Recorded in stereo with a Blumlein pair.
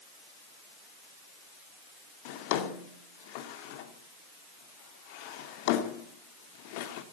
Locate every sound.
2.2 s a drawer: 45° left, 2 m